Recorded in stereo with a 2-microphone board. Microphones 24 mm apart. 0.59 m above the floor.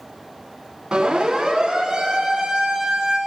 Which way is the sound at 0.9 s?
25° right (ahead or behind).